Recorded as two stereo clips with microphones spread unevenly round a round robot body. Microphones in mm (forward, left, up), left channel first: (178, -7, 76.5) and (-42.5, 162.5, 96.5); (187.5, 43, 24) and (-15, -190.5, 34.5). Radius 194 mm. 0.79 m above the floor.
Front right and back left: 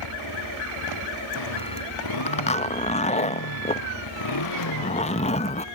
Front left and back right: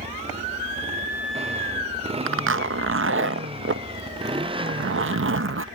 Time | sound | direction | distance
0.0 | a motorcycle | 60° right | ?
2.3 | a zipper | 90° right | ?